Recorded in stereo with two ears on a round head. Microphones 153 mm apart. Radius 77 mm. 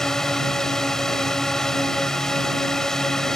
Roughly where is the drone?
Centre.